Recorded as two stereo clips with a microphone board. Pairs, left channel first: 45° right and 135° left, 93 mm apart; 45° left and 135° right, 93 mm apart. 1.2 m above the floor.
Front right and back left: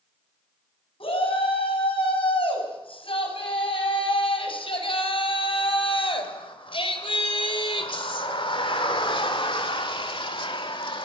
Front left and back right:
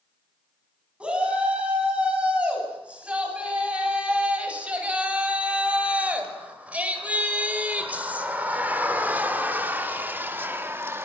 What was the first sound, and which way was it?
A shout, 55° right.